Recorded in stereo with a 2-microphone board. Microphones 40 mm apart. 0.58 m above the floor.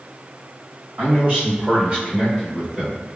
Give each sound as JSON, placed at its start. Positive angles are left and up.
{"t": 1.0, "sound": "a man speaking", "side_deg": -50, "distance_m": 1.9}